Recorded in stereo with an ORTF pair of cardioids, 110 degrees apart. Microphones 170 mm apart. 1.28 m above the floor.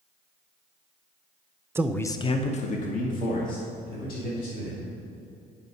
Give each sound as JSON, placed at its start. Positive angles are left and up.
{"t": 1.8, "sound": "a man speaking", "azimuth_deg": -15, "distance_m": 0.5}